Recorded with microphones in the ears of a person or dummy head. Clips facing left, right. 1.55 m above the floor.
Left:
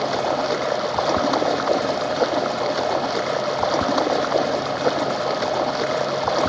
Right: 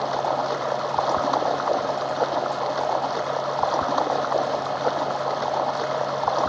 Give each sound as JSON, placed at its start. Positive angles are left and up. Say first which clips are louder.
{"t": 0.0, "sound": "running water", "louder": "left 3 dB", "side_deg": 30}